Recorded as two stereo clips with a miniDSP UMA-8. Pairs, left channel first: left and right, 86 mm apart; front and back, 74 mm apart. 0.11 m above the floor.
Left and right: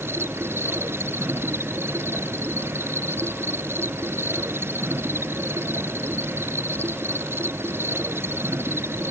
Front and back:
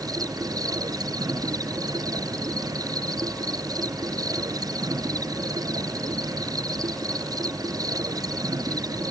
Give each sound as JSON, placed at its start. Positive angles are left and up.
{"t": 0.0, "sound": "an insect", "azimuth_deg": -150}